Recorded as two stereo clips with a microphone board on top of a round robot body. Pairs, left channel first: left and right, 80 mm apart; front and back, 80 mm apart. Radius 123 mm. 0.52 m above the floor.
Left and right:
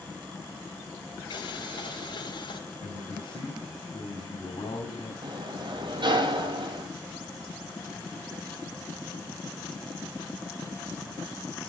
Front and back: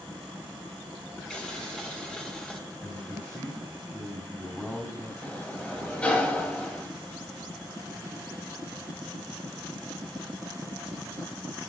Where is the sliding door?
75° right, 3.5 m.